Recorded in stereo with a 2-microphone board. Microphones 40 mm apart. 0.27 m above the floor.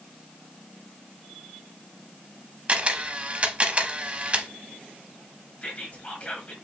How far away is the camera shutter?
About 0.6 m.